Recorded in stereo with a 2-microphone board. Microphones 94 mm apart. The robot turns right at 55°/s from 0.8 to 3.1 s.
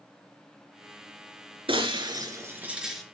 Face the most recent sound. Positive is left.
turn(degrees=10)